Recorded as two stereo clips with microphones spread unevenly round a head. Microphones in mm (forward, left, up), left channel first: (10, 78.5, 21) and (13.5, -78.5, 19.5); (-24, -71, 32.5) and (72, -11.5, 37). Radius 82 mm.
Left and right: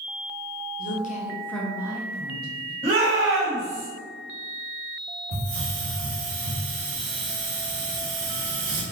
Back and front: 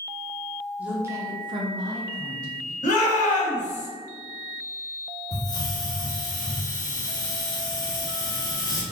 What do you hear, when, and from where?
0.8 s a woman speaking: 110° left, 0.8 m; by 2.7 s 35° right, 1.5 m
2.8 s a shout: 145° right, 1.5 m
5.3 s a hiss: 90° right, 0.8 m